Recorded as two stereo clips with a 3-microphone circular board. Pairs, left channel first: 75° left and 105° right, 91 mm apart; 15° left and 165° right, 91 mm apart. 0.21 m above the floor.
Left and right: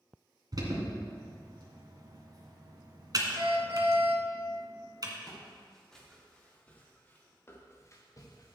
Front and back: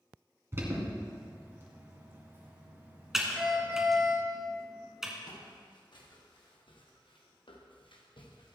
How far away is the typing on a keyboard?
About 1.8 m.